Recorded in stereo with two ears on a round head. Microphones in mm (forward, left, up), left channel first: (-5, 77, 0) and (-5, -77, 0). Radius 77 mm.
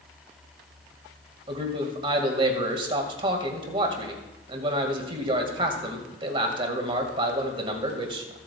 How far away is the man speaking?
About 1.9 m.